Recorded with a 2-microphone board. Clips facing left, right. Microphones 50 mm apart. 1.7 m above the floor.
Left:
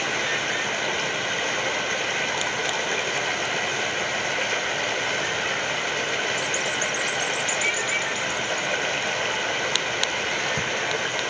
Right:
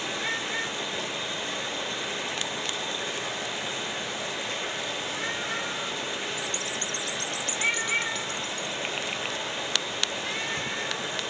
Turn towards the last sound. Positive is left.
turn(degrees=60)  # may be behind; listen again after turning